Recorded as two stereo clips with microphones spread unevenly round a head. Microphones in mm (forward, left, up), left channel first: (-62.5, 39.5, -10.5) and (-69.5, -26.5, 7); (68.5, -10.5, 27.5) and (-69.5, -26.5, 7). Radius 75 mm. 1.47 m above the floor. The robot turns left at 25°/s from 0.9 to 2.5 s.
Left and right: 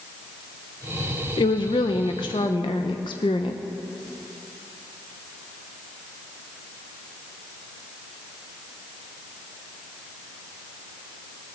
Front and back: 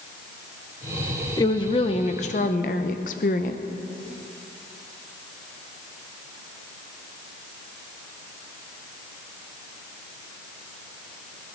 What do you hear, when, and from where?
1.4 s a woman speaking: 70° left, 0.9 m; by 3.6 s 45° left, 0.9 m